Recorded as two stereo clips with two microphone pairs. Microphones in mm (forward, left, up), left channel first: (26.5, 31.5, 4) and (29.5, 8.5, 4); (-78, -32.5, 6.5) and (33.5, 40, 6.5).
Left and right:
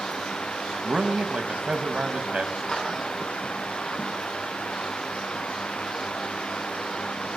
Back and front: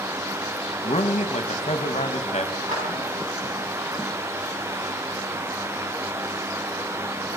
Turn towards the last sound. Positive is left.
turn(degrees=35)